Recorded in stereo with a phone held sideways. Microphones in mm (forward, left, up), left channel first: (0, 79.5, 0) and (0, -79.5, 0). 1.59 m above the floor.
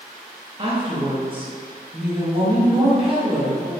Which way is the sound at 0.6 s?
35° right (ahead or behind).